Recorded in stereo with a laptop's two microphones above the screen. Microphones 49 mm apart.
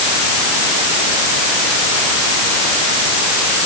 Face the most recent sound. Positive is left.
No sound to turn to.